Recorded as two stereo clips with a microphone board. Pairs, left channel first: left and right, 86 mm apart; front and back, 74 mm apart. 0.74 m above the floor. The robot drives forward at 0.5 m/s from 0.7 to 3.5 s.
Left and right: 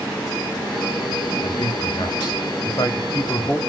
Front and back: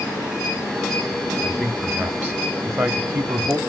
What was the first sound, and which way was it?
A man speaking, 95° left.